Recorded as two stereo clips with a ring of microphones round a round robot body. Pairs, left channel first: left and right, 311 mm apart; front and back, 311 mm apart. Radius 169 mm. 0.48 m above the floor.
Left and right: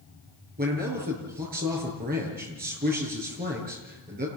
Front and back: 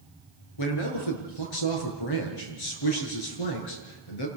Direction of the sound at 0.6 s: 25° right.